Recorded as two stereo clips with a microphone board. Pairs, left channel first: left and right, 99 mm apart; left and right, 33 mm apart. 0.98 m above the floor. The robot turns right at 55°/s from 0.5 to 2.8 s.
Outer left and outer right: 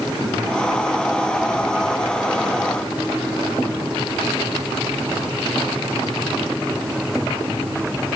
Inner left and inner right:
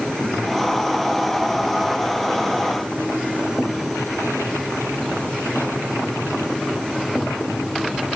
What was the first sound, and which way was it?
Only background noise.